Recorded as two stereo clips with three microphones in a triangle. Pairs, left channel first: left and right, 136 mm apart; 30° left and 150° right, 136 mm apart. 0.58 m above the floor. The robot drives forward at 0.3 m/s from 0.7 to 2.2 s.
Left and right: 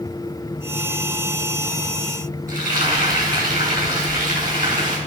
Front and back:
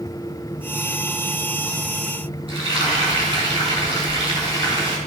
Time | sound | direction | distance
2.5 | frying | 100° right | 6 m